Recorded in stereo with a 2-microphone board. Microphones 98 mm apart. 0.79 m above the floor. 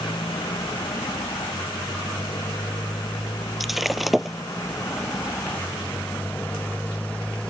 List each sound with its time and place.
0.0 s a motorcycle: 55° left (ahead or behind); by 7.5 s 10° left (ahead or behind)
3.6 s breaking glass: centre (ahead or behind)